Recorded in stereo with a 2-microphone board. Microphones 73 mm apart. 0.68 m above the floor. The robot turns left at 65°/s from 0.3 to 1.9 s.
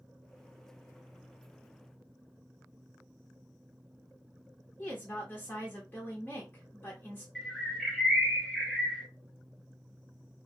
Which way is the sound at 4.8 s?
25° left (ahead or behind).